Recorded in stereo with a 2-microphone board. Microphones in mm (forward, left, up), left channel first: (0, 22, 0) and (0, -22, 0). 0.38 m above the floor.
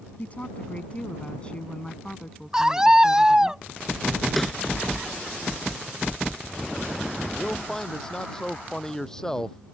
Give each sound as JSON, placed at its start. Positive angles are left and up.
{"t": 0.2, "sound": "a woman speaking", "side_deg": 30}
{"t": 2.5, "sound": "a scream", "side_deg": -15}
{"t": 4.4, "sound": "a snare drum", "side_deg": 0}
{"t": 7.3, "sound": "a man speaking", "side_deg": 10}